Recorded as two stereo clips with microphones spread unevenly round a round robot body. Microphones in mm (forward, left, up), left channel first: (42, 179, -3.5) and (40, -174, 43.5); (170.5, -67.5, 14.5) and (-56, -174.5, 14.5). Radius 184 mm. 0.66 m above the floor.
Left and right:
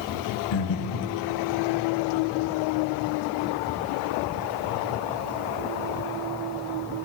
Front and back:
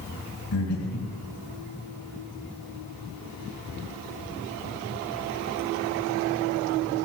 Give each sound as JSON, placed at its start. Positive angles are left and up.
{"t": 0.5, "sound": "breathing", "azimuth_deg": 80, "distance_m": 2.0}